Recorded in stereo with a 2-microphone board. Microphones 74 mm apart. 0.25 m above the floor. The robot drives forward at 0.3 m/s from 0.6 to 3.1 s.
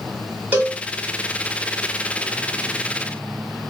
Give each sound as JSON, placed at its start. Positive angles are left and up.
{"t": 0.5, "sound": "a cowbell", "side_deg": -25, "distance_m": 1.3}